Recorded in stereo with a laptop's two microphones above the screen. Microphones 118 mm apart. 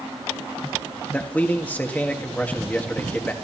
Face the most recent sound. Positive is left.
turn(degrees=15)  # may be behind; listen again after turning